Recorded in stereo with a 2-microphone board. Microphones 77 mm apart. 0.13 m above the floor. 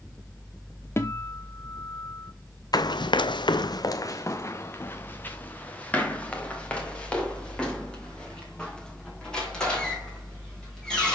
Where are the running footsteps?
60° left (ahead or behind), 0.6 m; by 11.2 s 10° left (ahead or behind), 5 m.